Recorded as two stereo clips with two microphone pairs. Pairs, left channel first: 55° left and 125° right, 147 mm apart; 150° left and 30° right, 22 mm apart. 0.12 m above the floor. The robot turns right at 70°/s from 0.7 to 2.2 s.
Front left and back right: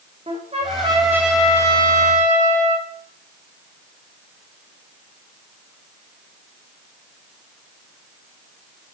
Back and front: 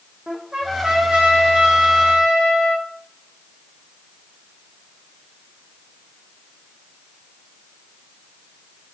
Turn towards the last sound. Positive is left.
turn(degrees=25)